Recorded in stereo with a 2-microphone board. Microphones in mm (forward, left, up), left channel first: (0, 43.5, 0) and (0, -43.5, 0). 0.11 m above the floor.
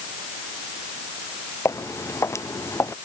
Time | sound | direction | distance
1.6 | footsteps | 35° left (ahead or behind) | ?